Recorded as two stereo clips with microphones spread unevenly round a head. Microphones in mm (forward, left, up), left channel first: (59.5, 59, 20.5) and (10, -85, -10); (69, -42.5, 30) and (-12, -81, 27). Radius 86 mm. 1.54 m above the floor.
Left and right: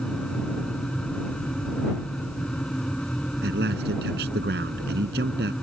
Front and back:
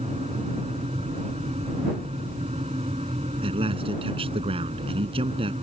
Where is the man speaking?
145° right.